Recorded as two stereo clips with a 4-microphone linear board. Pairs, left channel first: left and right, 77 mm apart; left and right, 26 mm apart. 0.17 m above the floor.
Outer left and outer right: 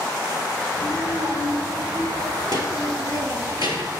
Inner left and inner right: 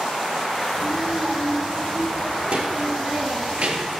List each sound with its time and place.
0.7 s a child speaking: 60° right (ahead or behind), 4.5 m; by 3.9 s 65° right (ahead or behind), 3 m